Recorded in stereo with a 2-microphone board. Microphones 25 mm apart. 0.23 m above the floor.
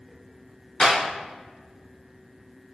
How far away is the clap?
About 1.8 m.